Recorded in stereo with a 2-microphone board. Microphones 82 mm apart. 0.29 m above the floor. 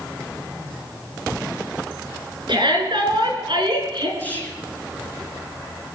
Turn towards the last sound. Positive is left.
turn(degrees=20)  # may be behind; listen again after turning